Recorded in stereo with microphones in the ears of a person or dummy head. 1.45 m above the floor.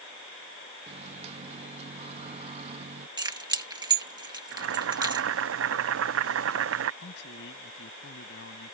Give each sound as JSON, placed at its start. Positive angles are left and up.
{"t": 0.9, "sound": "a microwave", "side_deg": -40}
{"t": 3.2, "sound": "keys jangling", "side_deg": -20}
{"t": 4.5, "sound": "boiling", "side_deg": -75}
{"t": 7.0, "sound": "a man speaking", "side_deg": 70}